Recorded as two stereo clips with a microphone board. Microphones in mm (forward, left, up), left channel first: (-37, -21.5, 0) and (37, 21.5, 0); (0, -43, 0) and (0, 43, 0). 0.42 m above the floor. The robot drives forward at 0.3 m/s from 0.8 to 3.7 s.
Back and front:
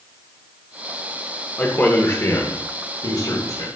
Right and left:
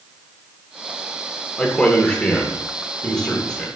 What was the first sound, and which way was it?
A man speaking, 145° right.